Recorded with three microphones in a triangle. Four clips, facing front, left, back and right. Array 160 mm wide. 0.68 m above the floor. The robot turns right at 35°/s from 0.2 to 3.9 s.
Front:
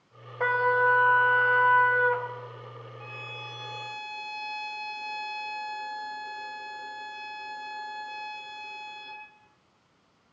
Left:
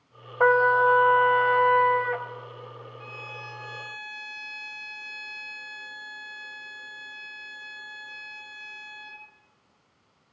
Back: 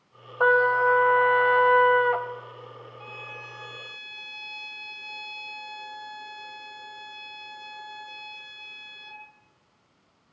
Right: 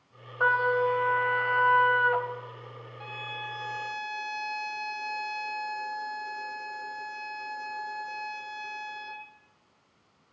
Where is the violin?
95° right, 2.5 m; by 9.2 s 65° right, 2.5 m.